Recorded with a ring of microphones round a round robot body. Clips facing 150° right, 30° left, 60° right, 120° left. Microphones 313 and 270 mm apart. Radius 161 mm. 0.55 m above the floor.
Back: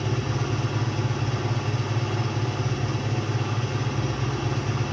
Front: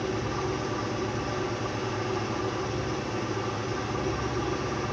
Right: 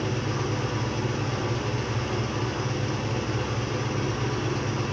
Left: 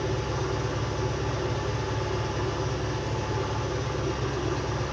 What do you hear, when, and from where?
0.0 s an engine running: 90° right, 5.5 m